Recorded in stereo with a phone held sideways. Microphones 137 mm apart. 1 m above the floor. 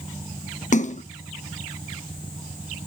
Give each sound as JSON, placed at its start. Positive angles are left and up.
{"t": 0.7, "sound": "a splash", "side_deg": 60, "distance_m": 0.6}